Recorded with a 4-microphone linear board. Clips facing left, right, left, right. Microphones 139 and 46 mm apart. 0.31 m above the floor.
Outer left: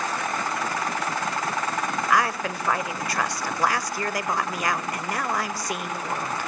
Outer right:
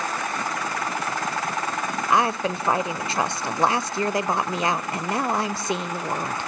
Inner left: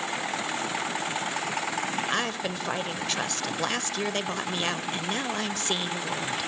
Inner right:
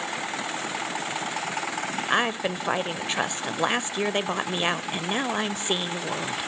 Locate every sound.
2.1 s a woman speaking: 25° right (ahead or behind), 0.9 m